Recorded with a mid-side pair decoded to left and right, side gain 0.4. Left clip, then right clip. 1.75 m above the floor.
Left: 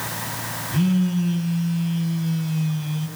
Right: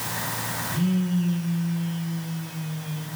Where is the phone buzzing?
60° left, 4.5 m.